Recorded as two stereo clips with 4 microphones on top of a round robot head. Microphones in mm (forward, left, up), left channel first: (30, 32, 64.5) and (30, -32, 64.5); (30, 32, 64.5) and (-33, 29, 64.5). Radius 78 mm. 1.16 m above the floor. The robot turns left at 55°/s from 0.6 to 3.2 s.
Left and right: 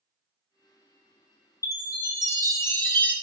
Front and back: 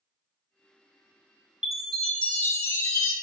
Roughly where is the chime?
Left.